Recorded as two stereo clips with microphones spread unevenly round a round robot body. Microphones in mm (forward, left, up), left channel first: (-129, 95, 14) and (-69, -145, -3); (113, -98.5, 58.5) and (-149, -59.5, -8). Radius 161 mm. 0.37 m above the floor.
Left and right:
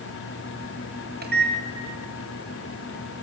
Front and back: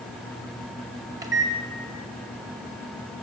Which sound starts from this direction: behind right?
A microwave, at 1.2 s.